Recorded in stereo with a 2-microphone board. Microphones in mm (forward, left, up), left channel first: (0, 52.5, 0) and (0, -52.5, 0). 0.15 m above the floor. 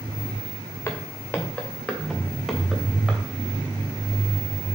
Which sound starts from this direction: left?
Footsteps, at 0.9 s.